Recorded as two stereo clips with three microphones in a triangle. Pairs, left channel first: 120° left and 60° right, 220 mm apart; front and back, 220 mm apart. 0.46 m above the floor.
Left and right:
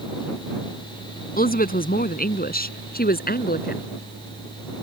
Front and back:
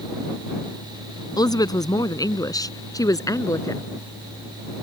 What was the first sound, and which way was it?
A woman speaking, 70° left.